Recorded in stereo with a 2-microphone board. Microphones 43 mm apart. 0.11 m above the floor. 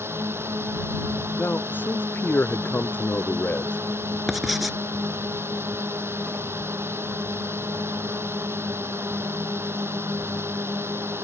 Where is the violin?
I don't hear a violin.